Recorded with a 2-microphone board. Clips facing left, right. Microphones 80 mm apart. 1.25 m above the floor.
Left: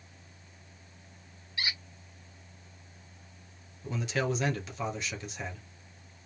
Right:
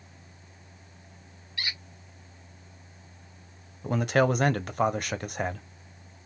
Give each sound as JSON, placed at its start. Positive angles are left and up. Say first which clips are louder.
{"t": 1.6, "sound": "a squeak", "louder": "even", "side_deg": 20, "distance_m": 1.5}
{"t": 3.8, "sound": "a man speaking", "louder": "right 8 dB", "side_deg": -55, "distance_m": 0.6}